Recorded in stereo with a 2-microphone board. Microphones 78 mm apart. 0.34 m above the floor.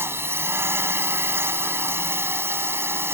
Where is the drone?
30° right (ahead or behind).